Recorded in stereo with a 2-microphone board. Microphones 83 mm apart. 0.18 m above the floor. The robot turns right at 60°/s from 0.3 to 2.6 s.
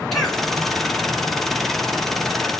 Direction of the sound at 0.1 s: 5° left (ahead or behind).